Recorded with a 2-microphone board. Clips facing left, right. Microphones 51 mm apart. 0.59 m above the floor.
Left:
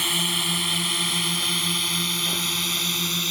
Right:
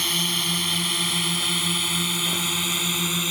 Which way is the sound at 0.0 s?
10° left (ahead or behind).